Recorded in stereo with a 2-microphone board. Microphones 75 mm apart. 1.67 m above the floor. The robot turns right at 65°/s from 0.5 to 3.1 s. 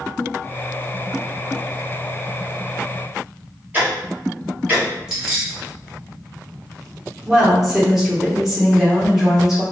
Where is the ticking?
25° right (ahead or behind), 1.3 m.